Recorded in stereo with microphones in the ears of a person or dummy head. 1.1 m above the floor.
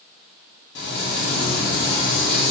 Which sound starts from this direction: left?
Frying, at 0.8 s.